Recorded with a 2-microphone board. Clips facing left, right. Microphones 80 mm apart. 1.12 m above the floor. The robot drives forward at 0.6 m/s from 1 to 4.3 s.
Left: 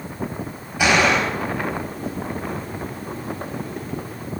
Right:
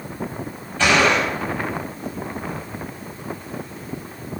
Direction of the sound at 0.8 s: 10° left (ahead or behind).